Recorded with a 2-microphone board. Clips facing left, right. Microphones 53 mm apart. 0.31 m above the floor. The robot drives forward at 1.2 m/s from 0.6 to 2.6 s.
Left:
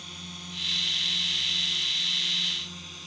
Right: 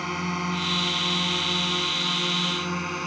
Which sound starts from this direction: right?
A drone, at 0.0 s.